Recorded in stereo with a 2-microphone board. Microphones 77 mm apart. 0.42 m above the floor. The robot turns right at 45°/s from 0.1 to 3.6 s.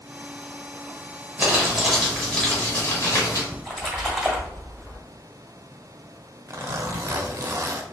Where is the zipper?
40° right (ahead or behind), 0.6 m.